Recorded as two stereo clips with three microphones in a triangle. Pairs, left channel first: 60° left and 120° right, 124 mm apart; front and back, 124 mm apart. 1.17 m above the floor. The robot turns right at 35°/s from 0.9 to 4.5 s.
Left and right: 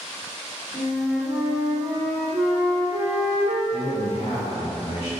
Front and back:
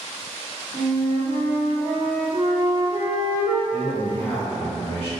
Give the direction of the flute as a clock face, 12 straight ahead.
7 o'clock.